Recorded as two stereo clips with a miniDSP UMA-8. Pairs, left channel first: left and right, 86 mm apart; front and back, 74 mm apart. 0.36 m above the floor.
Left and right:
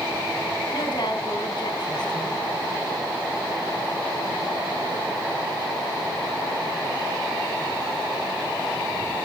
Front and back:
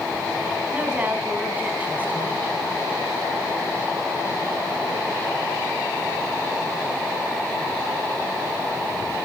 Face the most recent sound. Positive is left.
turn(degrees=115)